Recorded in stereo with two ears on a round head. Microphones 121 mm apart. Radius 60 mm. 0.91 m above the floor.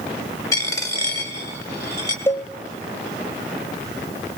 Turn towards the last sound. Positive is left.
turn(degrees=20)  # may be behind; listen again after turning